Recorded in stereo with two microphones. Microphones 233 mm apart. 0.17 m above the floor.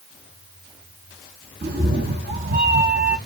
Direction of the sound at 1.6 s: 45° right (ahead or behind).